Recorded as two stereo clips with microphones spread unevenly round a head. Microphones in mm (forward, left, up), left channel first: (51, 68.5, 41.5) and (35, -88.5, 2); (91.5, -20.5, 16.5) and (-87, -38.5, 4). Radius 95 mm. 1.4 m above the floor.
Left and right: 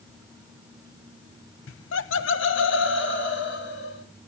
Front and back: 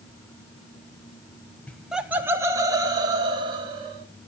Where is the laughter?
90° left, 0.7 m; by 4.0 s 120° left, 3 m.